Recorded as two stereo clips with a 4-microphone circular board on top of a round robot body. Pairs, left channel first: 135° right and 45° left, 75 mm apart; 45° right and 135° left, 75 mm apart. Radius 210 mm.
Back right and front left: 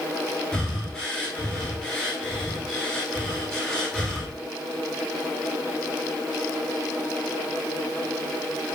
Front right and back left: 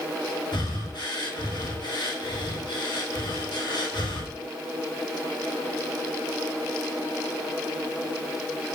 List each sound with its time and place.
0.5 s breathing: 60° right, 9 m